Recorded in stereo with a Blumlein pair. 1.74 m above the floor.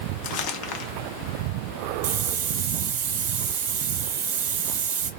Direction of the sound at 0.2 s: 40° left.